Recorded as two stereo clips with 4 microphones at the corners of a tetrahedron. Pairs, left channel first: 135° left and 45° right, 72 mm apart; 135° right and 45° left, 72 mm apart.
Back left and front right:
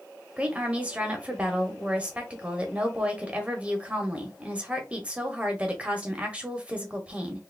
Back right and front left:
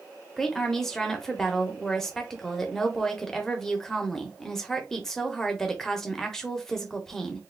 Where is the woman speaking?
65° right, 0.9 m.